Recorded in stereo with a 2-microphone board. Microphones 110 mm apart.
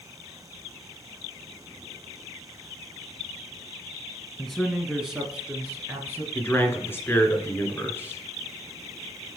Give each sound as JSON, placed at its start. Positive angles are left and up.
{"t": 4.4, "sound": "a man speaking", "side_deg": 5, "distance_m": 1.5}
{"t": 6.3, "sound": "a man speaking", "side_deg": 20, "distance_m": 2.0}